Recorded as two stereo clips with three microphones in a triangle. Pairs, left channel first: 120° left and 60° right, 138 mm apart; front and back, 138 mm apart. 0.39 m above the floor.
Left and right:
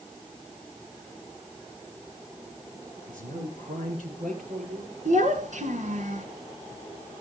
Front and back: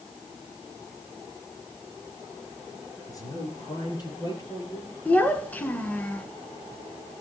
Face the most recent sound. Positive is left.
turn(degrees=-80)